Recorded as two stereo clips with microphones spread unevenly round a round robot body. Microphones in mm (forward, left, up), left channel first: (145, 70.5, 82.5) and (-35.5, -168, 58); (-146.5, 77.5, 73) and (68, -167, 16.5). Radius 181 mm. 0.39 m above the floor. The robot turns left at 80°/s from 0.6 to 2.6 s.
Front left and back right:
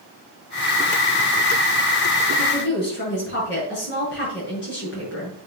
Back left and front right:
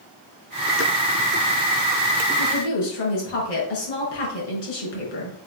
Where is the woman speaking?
130° left, 5.5 m; by 5.4 s 110° left, 5.5 m.